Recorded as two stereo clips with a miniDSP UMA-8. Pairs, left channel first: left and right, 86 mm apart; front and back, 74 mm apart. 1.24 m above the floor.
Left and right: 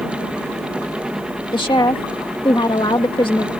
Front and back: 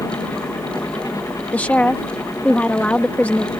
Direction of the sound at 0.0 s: 10° right.